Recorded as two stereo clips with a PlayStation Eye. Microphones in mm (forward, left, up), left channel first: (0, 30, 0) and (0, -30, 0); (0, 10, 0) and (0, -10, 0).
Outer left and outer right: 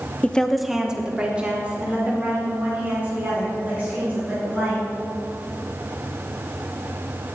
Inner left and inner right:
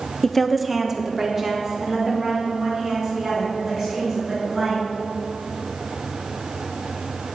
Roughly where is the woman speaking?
Left.